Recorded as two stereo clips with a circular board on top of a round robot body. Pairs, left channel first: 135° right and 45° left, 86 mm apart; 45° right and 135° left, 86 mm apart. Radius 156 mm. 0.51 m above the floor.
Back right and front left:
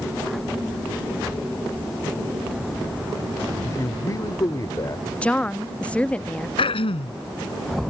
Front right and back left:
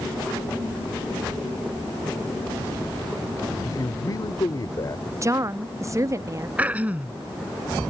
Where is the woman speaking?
155° left.